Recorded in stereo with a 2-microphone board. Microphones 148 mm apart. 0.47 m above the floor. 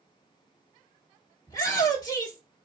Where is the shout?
25° left (ahead or behind), 1.3 m.